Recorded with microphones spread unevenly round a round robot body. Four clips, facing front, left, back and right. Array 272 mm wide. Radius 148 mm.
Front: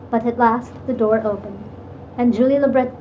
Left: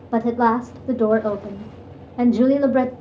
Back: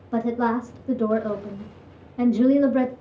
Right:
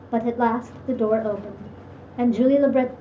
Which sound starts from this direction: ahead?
A woman speaking, at 0.1 s.